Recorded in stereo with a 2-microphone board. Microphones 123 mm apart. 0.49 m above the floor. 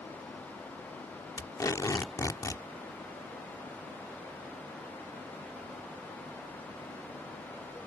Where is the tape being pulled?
30° left (ahead or behind).